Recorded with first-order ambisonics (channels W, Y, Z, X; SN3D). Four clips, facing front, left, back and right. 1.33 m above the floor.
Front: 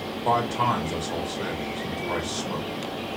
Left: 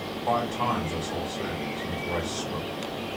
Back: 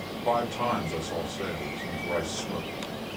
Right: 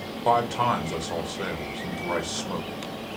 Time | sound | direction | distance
0.2 | a man speaking | 70° right | 1.3 m